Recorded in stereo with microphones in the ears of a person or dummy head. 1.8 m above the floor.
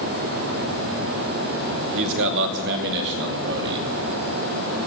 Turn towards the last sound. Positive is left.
turn(degrees=-65)  # may be behind; listen again after turning